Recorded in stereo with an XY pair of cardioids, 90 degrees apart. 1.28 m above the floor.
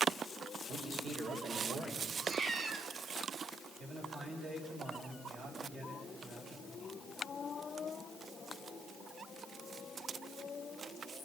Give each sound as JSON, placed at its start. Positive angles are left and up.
{"t": 0.7, "sound": "a man speaking", "azimuth_deg": -65, "distance_m": 5.5}
{"t": 2.2, "sound": "a cat meowing", "azimuth_deg": -55, "distance_m": 1.8}
{"t": 3.8, "sound": "a man speaking", "azimuth_deg": -55, "distance_m": 9.0}